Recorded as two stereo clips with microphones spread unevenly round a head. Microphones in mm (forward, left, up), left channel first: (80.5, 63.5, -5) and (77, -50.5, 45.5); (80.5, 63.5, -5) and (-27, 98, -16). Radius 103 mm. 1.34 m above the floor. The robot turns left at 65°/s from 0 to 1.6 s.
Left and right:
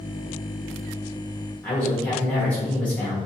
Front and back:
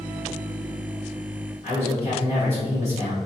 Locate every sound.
1.6 s a man speaking: 10° left, 1.3 m